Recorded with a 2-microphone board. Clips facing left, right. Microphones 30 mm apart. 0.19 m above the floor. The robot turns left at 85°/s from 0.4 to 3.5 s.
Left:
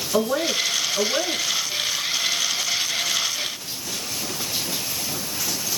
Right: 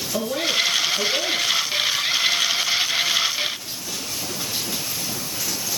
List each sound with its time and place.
0.1 s a woman speaking: 125° left, 2.5 m; by 1.6 s 25° left, 2.5 m